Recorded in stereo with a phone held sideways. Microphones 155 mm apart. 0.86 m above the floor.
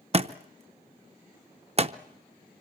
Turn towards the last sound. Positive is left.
turn(degrees=-40)  # may be behind; listen again after turning